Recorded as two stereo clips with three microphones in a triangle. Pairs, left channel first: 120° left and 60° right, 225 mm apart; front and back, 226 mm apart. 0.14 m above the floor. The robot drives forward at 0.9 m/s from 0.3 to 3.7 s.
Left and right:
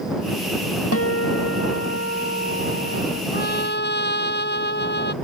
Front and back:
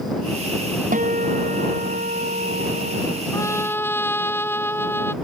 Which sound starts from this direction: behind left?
A guitar, at 0.9 s.